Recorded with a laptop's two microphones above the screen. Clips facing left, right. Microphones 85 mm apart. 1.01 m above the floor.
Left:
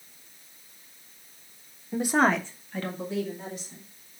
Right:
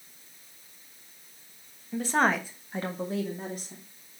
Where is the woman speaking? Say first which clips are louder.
Left 2 dB; 25° left (ahead or behind), 1.3 m; by 3.8 s 50° right (ahead or behind), 2.5 m.